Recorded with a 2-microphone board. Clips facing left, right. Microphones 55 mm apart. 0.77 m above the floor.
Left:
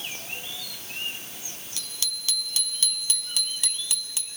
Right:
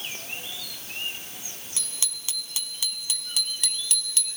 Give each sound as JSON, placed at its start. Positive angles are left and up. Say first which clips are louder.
{"t": 1.8, "sound": "a bicycle bell", "louder": "left 3 dB", "side_deg": -20, "distance_m": 4.5}